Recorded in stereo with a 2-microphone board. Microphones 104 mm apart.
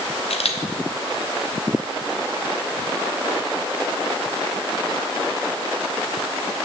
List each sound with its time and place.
0.3 s a camera shutter: 75° left (ahead or behind), 1.1 m